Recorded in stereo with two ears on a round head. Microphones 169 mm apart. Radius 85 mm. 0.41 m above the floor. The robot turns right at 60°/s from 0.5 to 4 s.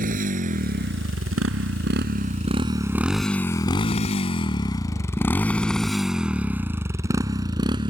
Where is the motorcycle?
45° right (ahead or behind); by 7.9 s 25° right (ahead or behind).